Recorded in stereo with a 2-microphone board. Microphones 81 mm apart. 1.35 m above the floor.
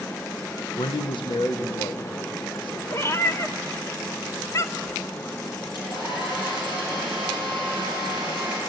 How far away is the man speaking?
About 0.8 m.